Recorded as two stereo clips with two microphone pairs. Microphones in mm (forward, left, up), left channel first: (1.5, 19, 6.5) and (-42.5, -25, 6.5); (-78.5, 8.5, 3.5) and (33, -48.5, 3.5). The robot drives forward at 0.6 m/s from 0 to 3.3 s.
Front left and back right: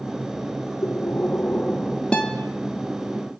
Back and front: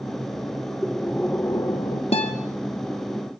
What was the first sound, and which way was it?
Breathing, 55° left.